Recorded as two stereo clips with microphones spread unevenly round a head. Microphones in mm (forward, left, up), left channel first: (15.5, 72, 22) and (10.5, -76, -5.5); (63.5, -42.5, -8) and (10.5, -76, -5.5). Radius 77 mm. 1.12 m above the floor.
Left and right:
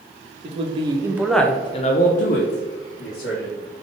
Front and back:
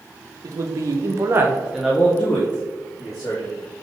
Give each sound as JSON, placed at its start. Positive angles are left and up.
{"t": 0.4, "sound": "a man speaking", "azimuth_deg": -125, "distance_m": 0.9}